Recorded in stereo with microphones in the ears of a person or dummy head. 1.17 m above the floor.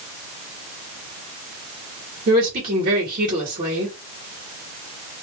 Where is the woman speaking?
55° right (ahead or behind), 1.5 m.